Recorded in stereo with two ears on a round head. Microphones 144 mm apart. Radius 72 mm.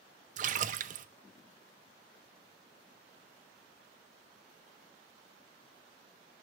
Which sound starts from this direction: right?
A splash, at 0.4 s.